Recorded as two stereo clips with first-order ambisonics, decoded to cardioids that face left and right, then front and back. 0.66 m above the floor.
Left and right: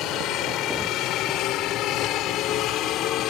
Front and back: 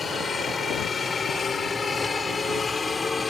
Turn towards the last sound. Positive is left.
turn(degrees=70)